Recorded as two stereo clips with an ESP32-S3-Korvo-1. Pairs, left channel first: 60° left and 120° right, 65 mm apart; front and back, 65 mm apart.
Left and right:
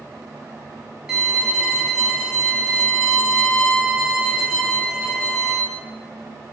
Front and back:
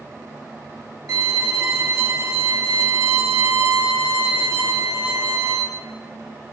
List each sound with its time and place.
1.1 s a violin: 155° left, 0.8 m